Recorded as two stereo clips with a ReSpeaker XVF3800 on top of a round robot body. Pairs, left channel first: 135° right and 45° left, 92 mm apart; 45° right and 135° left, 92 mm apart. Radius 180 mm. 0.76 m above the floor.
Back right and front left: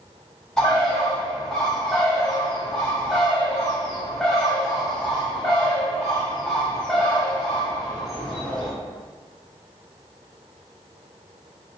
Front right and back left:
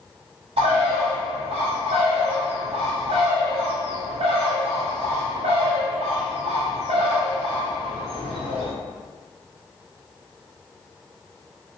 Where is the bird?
140° left, 0.9 m.